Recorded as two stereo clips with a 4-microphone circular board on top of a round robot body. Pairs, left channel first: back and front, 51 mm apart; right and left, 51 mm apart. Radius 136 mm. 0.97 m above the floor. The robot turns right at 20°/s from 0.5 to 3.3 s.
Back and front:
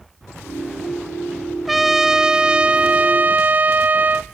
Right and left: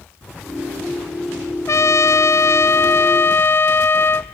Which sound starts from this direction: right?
A trumpet, at 1.7 s.